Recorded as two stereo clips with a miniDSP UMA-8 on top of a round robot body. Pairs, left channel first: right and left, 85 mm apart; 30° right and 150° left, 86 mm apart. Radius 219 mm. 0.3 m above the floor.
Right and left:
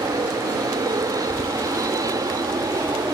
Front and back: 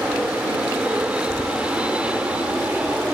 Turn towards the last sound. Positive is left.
turn(degrees=80)